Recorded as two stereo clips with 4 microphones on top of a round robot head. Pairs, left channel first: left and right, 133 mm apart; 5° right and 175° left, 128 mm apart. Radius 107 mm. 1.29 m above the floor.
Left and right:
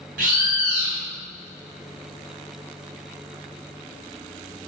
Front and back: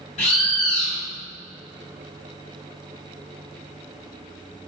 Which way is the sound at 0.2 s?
60° right.